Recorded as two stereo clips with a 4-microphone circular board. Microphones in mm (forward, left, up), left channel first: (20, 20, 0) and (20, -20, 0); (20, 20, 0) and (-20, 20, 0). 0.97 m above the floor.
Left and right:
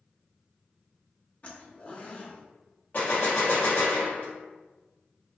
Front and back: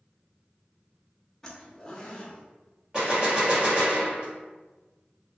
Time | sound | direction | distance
1.4 | a zipper | 65° left | 0.7 m
2.9 | a gunshot | 115° left | 1.5 m